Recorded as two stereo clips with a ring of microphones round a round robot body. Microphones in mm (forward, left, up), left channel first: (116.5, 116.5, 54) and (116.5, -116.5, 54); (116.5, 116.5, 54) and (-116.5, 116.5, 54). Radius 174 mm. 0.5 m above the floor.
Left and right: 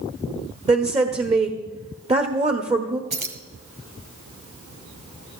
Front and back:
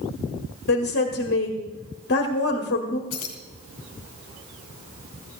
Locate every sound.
0.7 s a woman speaking: 30° right, 1.3 m
3.1 s keys jangling: 45° right, 2 m